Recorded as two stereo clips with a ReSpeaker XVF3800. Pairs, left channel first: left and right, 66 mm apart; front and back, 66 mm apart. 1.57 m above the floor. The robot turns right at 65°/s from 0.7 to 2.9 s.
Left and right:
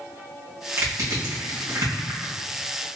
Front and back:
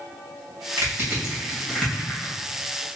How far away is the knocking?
I don't hear knocking.